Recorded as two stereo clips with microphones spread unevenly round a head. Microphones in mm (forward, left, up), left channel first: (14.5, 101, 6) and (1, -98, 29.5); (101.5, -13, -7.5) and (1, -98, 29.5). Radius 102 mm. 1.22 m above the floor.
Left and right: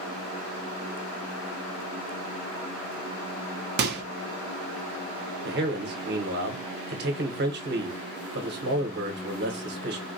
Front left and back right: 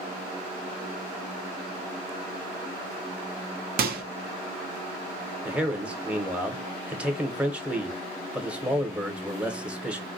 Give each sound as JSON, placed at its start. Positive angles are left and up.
{"t": 3.8, "sound": "a microwave", "azimuth_deg": -140, "distance_m": 0.7}
{"t": 5.5, "sound": "a man speaking", "azimuth_deg": -55, "distance_m": 1.0}